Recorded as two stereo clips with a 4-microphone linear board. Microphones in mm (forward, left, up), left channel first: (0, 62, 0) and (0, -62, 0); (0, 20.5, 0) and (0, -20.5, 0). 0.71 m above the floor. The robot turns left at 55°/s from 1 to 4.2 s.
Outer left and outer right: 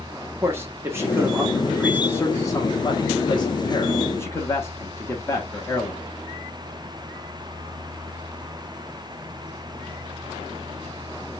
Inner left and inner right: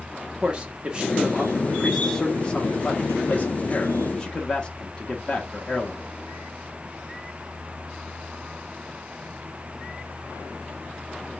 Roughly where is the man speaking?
Behind right.